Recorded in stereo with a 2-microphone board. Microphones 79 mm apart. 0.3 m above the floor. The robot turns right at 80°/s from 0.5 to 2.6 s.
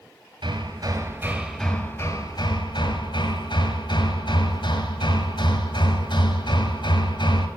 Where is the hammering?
80° right, 1.5 m; by 7.5 s 90° left, 1.5 m.